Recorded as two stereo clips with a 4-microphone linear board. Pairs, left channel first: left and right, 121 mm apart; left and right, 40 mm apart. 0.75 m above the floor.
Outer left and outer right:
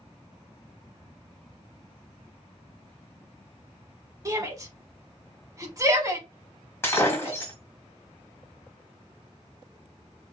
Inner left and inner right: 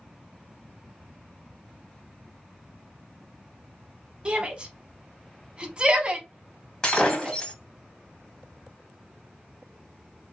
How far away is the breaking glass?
About 1.3 m.